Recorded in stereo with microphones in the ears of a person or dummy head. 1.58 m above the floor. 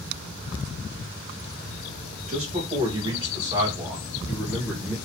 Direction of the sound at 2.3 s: 40° right (ahead or behind).